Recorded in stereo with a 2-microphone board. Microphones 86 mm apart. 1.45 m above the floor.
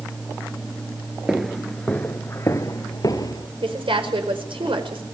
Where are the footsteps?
5° right (ahead or behind), 1.6 m; by 3.5 s 50° left (ahead or behind), 2.5 m.